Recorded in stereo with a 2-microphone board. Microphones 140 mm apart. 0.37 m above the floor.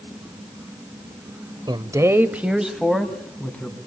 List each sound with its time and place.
1.7 s a man speaking: 30° right (ahead or behind), 1.1 m; by 3.8 s 10° left (ahead or behind), 2.5 m